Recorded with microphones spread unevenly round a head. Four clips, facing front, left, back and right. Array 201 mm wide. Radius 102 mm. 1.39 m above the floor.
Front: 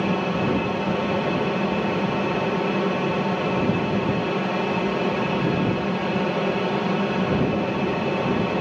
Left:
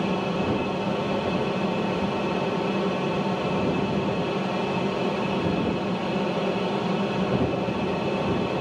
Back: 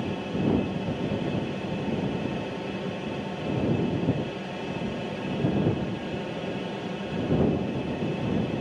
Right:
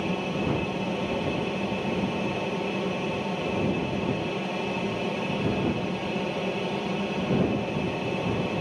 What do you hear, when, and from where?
0.0 s an aircraft: 15° left